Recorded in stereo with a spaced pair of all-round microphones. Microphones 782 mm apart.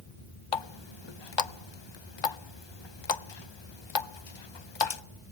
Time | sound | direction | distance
0.5 | a running tap | 40° left (ahead or behind) | 0.5 m